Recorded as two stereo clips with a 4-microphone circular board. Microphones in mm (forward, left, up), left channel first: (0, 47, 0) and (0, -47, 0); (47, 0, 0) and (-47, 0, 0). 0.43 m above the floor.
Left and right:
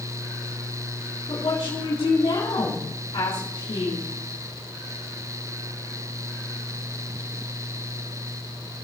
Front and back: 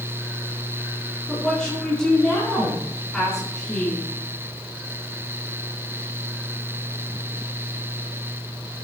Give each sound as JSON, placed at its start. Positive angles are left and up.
{"t": 1.3, "sound": "a woman speaking", "azimuth_deg": 80, "distance_m": 4.0}